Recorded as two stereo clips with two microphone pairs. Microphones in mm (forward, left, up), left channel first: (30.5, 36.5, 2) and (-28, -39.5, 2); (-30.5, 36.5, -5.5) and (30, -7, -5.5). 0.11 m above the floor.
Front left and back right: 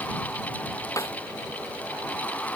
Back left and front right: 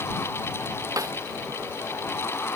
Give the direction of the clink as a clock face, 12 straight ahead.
I don't hear a clink.